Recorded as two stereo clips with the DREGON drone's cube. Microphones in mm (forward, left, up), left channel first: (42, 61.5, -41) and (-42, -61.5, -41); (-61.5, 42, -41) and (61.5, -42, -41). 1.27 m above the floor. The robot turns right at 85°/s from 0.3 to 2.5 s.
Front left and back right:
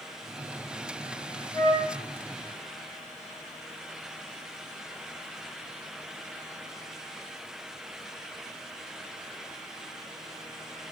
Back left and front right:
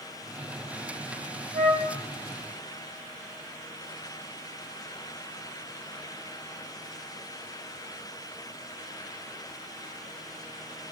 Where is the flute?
10° right, 2 m; by 1.9 s 25° left, 2 m.